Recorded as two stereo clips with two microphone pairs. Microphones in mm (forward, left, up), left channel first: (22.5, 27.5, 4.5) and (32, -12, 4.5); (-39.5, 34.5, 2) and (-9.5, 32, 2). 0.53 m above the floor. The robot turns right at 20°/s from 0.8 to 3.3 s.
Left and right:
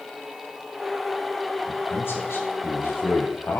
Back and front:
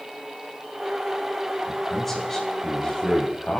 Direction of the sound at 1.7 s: 90° left.